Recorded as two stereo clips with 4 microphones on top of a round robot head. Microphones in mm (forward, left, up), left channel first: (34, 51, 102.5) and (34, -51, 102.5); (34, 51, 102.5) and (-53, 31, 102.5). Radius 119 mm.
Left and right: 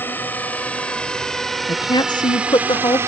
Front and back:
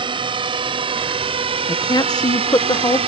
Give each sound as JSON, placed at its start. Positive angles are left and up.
{"t": 0.0, "sound": "a drone", "azimuth_deg": 165}
{"t": 1.7, "sound": "a woman speaking", "azimuth_deg": 50}